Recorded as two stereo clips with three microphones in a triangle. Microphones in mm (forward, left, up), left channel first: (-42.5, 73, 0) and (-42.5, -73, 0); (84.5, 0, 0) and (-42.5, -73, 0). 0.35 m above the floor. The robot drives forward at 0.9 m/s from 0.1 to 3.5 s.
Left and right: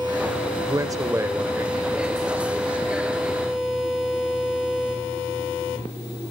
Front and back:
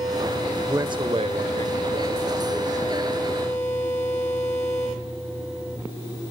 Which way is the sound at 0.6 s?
105° right.